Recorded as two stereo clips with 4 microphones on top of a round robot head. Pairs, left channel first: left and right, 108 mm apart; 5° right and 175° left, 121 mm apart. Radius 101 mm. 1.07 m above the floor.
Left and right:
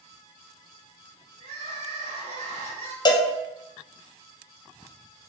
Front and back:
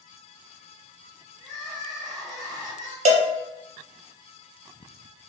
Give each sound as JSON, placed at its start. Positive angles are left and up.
{"t": 1.4, "sound": "crying", "azimuth_deg": -90, "distance_m": 0.8}
{"t": 3.0, "sound": "a cowbell", "azimuth_deg": 140, "distance_m": 0.5}